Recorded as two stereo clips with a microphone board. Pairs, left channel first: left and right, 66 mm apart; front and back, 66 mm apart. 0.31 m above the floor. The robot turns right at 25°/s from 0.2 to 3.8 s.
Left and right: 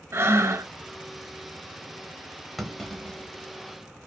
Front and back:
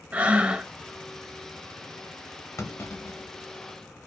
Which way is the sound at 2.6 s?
5° left.